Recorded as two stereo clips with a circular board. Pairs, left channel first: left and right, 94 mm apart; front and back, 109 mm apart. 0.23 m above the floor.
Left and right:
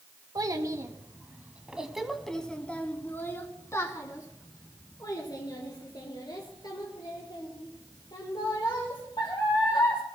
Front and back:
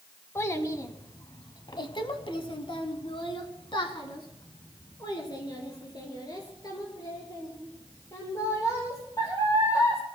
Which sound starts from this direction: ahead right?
A child speaking, at 0.3 s.